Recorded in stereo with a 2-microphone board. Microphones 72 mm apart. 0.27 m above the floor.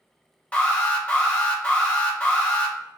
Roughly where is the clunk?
I don't hear a clunk.